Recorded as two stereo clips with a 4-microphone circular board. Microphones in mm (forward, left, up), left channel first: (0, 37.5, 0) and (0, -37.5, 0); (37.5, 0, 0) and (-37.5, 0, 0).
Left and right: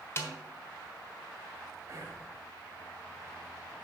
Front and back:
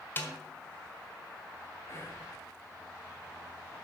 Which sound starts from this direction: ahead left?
A snare drum, at 0.2 s.